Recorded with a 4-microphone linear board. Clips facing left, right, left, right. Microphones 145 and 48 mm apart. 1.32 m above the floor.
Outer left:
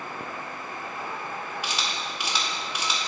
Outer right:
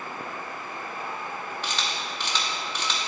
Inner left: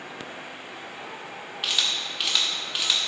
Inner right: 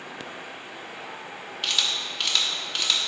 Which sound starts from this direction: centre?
A camera shutter, at 1.6 s.